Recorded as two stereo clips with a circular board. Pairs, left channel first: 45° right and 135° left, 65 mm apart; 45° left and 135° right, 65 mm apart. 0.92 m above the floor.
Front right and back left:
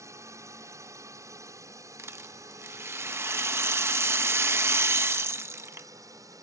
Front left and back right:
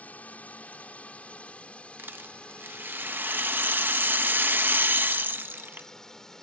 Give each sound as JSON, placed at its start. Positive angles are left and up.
{"t": 0.0, "sound": "a drone", "azimuth_deg": 110}
{"t": 2.0, "sound": "a rattle", "azimuth_deg": 170}